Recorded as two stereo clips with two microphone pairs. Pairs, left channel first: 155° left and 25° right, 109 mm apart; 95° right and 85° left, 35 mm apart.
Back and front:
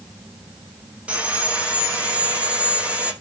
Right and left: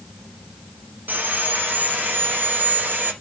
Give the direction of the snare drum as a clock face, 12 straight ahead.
No snare drum in this recording.